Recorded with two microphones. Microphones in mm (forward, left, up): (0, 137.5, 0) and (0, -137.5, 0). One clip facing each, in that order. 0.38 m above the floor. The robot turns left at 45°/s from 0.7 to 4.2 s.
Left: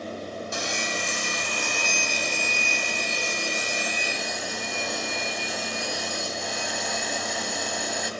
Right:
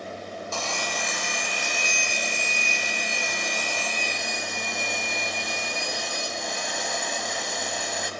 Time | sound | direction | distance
0.5 | sawing | 160° left | 1.9 m